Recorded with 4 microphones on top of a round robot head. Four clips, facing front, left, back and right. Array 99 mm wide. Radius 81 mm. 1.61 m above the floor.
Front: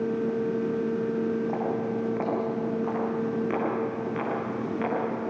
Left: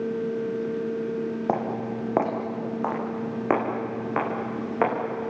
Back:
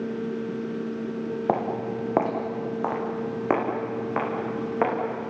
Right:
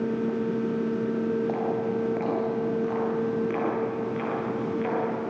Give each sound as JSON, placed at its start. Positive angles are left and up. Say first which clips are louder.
{"t": 1.5, "sound": "footsteps", "louder": "even, back 2 dB", "azimuth_deg": 150, "distance_m": 3.5}